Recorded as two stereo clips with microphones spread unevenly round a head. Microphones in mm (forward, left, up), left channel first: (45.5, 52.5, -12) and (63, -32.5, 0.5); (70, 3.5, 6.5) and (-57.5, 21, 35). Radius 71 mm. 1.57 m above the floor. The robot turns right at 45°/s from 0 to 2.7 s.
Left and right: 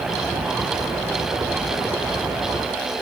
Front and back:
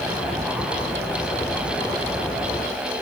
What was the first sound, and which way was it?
Only background noise.